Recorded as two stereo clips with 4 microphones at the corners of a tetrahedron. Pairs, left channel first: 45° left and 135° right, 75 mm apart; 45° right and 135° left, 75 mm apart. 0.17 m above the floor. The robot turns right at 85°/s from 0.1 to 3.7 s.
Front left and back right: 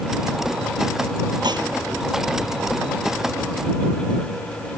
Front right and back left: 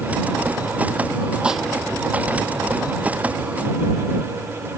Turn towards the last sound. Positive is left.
turn(degrees=40)